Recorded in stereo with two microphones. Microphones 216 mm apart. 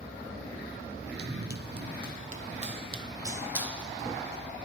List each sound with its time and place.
1.2 s running footsteps: 55° right (ahead or behind), 1.0 m; by 4.5 s 5° left (ahead or behind), 1.3 m